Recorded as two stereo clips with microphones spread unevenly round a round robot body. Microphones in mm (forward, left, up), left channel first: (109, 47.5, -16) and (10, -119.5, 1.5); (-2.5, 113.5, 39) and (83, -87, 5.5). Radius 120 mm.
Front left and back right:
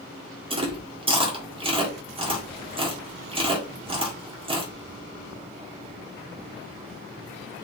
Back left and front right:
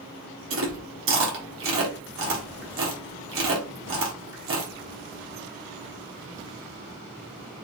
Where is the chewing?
55° right, 1.2 m.